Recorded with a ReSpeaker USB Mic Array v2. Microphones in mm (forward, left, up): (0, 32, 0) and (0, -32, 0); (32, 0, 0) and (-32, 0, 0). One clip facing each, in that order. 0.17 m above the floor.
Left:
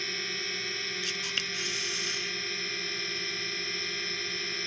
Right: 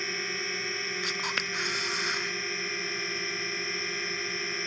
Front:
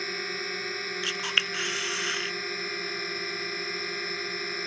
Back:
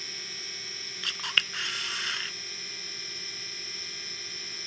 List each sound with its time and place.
0.0 s a drone: 25° right
1.0 s a camera shutter: 85° right